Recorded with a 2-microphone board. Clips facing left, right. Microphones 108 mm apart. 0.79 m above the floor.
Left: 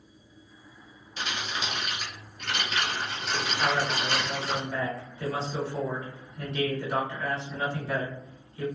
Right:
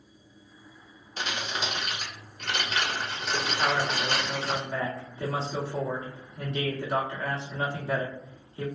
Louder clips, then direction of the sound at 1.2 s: Right 1 dB; 40° right (ahead or behind).